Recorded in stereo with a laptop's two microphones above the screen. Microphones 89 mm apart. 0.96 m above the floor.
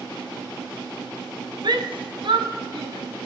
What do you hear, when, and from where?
1.6 s a shout: 55° right (ahead or behind), 1.4 m; by 3.0 s 75° right (ahead or behind), 3 m